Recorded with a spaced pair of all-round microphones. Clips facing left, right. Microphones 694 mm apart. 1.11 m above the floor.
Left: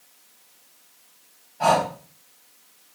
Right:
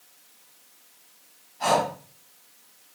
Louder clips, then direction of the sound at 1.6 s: Left 2 dB; 70° left (ahead or behind).